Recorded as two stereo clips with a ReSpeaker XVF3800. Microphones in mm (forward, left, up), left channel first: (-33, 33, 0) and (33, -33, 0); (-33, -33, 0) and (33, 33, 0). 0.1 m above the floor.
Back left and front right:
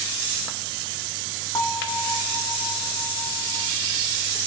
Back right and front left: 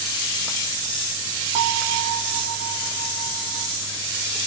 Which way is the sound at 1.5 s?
75° left.